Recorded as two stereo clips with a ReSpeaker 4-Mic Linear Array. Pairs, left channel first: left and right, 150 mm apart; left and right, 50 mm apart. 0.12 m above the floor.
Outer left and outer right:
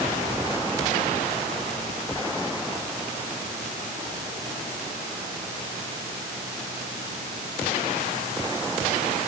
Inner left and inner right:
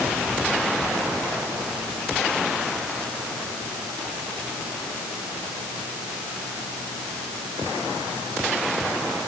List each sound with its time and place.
Only background noise.